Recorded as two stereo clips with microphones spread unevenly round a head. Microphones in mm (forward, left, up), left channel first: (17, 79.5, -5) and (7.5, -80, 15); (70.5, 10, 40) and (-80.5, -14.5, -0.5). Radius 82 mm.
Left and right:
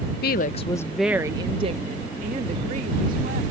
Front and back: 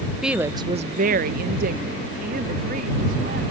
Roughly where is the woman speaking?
Left.